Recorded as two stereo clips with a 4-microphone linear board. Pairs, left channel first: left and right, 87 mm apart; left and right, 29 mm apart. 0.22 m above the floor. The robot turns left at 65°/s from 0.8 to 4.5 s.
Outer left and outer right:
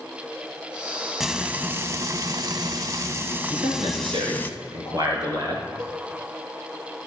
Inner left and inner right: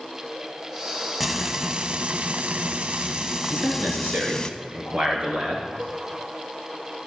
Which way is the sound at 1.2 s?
5° right.